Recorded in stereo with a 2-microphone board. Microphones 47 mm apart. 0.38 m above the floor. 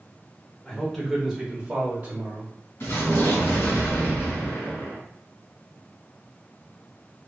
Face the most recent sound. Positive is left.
turn(degrees=60)  # may be behind; listen again after turning